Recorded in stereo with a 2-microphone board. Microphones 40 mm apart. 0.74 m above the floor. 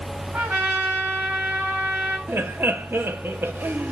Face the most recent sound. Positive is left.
turn(degrees=-70)  # may be behind; listen again after turning